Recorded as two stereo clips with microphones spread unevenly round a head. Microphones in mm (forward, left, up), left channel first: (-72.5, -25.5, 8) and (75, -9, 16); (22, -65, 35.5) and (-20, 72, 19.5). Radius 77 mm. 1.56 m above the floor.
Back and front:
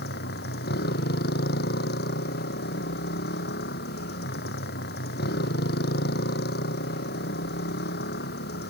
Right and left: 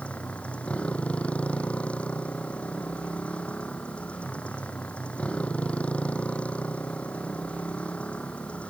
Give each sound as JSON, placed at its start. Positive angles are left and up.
{"t": 0.0, "sound": "a motorcycle", "azimuth_deg": -155}